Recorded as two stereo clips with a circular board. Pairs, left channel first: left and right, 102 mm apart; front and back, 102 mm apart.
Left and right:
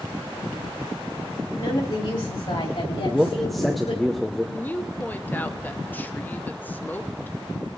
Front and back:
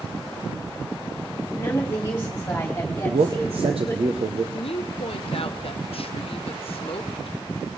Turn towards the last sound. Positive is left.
turn(degrees=20)